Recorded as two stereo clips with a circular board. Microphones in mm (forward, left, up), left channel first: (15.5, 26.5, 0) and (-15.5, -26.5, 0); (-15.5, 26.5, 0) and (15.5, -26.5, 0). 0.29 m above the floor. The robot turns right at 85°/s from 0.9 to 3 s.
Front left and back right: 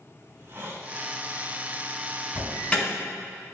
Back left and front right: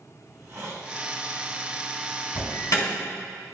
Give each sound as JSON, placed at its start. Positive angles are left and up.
{"t": 0.2, "sound": "a hiss", "azimuth_deg": -80, "distance_m": 1.8}
{"t": 2.4, "sound": "an alarm", "azimuth_deg": 95, "distance_m": 4.0}